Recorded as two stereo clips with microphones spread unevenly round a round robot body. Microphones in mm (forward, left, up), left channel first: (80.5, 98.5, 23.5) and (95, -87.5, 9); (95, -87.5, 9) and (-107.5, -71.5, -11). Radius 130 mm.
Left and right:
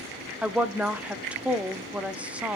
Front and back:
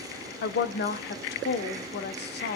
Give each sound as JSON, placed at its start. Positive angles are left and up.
{"t": 0.4, "sound": "a woman speaking", "azimuth_deg": -10, "distance_m": 1.0}